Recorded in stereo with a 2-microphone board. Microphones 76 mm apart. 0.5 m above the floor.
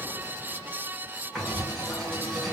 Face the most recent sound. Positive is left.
turn(degrees=5)  # may be behind; listen again after turning